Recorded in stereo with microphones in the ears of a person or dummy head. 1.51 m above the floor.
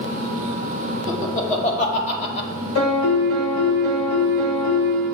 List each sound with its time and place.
1.1 s laughter: 45° left (ahead or behind), 3 m; by 2.5 s 40° left (ahead or behind), 2.0 m
2.8 s a piano: 80° left, 3 m